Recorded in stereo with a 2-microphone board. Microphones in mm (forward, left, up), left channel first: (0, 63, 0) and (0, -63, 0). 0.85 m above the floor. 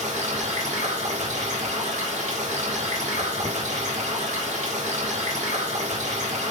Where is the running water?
75° right (ahead or behind), 4.5 m.